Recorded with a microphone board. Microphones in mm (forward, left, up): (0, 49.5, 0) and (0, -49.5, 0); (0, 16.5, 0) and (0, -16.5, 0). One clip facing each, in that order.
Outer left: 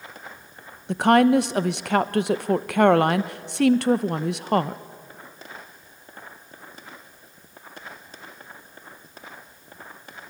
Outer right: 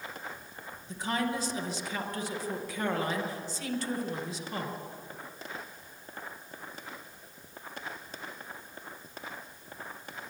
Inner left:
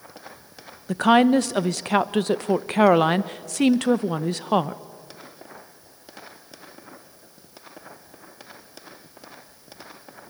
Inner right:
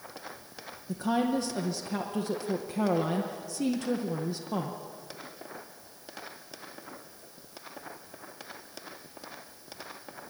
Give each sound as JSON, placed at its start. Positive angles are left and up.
{"t": 0.9, "sound": "a woman speaking", "side_deg": 65, "distance_m": 0.9}